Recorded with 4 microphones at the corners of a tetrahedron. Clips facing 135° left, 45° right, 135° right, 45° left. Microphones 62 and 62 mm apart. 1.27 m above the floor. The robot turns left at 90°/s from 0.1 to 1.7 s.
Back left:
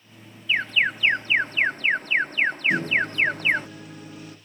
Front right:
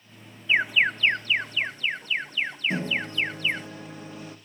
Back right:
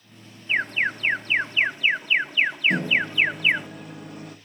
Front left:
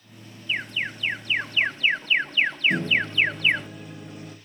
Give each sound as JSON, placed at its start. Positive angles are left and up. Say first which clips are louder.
{"t": 0.5, "sound": "an alarm", "louder": "front right 1 dB, back right 5 dB", "azimuth_deg": -100, "distance_m": 0.6}
{"t": 2.7, "sound": "a microwave", "louder": "back left 5 dB, back right 1 dB", "azimuth_deg": -105, "distance_m": 1.3}